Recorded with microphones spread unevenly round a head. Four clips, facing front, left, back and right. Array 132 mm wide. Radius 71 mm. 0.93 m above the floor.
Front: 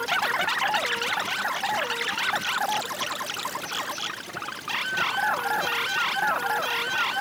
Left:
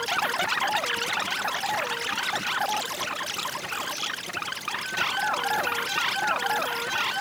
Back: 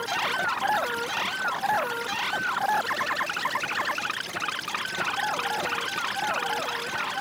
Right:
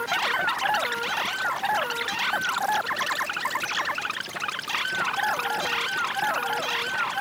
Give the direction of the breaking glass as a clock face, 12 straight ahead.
No breaking glass in this recording.